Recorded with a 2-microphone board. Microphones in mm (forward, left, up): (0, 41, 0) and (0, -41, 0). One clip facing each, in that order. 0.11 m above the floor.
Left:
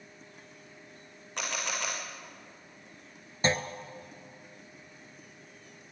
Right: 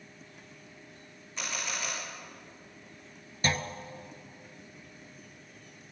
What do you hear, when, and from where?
1.4 s a camera shutter: 65° left (ahead or behind), 5 m
3.4 s a clunk: 25° left (ahead or behind), 0.9 m